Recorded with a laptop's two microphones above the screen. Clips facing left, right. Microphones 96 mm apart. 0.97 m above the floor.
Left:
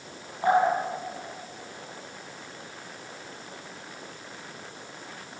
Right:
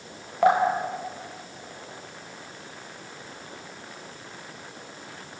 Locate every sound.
0.4 s dripping: 75° right (ahead or behind), 4.5 m